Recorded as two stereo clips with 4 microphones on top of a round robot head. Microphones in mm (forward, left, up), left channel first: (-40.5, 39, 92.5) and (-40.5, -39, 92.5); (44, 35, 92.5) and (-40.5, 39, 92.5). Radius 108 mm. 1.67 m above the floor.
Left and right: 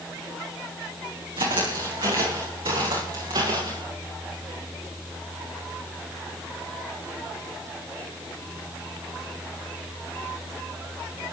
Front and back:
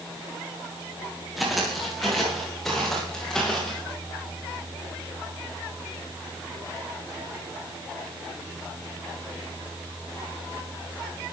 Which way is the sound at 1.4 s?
95° right.